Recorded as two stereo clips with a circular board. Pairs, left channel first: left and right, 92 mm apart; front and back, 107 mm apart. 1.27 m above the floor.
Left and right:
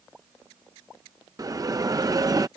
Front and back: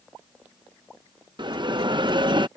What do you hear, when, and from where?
1.4 s a bell: 135° right